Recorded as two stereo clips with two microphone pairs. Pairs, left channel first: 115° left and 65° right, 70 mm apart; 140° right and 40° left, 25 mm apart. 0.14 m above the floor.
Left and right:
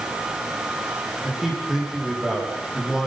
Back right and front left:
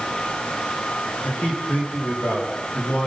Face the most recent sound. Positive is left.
turn(degrees=-145)